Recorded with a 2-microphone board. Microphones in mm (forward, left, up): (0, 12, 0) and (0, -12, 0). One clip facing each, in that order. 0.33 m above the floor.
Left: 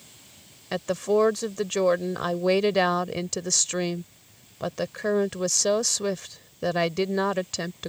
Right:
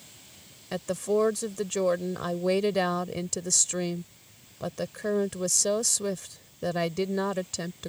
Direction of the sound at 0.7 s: 25° left (ahead or behind).